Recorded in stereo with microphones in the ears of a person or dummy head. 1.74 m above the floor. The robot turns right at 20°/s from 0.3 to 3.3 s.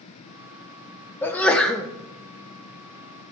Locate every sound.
1.2 s a sneeze: 10° left (ahead or behind), 0.7 m; by 1.9 s centre (ahead or behind), 0.7 m